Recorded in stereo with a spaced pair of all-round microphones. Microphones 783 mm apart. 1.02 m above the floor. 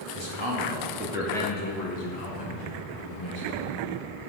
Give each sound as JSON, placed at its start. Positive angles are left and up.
{"t": 0.1, "sound": "a man speaking", "side_deg": -45, "distance_m": 2.5}